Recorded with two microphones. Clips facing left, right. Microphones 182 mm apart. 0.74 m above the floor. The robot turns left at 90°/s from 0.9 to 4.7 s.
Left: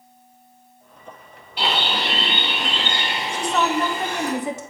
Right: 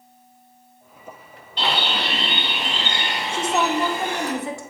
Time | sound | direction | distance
1.6 | a bird | 170° left | 1.8 m
3.3 | a woman speaking | 25° right (ahead or behind) | 0.8 m